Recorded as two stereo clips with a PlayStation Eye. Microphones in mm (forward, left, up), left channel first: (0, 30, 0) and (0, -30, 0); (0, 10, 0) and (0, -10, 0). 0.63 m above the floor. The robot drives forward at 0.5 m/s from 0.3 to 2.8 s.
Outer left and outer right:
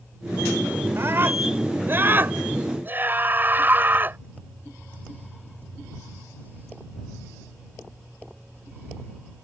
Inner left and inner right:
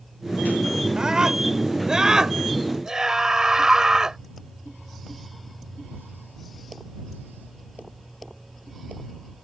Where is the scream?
45° right (ahead or behind); by 4.2 s 35° right (ahead or behind).